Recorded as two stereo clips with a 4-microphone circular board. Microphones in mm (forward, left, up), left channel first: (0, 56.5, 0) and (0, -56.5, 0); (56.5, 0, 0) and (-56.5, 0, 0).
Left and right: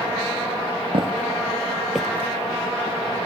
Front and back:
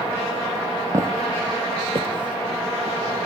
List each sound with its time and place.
0.9 s footsteps: 120° right, 1.2 m; by 3.2 s 115° left, 1.4 m